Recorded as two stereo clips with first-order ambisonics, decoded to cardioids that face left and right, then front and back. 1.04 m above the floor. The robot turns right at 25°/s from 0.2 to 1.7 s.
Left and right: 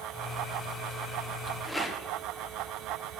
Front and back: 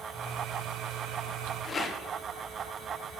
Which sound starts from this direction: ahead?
A rattle, at 1.6 s.